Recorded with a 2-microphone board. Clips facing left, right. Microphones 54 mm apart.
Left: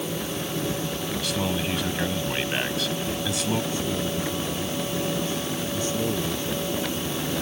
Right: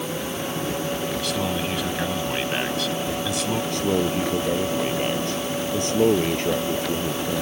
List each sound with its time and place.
1.2 s a man speaking: centre (ahead or behind)
3.7 s a man speaking: 65° right (ahead or behind)